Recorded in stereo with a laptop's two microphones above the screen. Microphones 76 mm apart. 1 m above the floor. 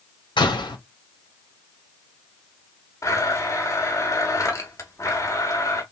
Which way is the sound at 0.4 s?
80° left.